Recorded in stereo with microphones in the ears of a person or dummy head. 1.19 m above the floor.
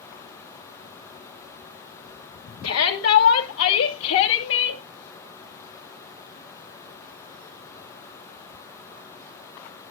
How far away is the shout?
About 2.5 m.